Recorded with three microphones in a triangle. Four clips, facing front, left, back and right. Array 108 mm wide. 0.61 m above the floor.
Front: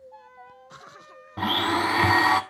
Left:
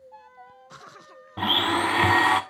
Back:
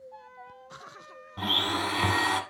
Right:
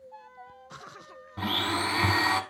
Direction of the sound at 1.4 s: 45° left.